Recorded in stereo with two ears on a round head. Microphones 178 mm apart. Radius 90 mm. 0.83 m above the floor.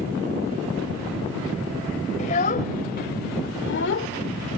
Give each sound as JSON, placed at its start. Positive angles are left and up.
{"t": 2.2, "sound": "a child speaking", "side_deg": 35}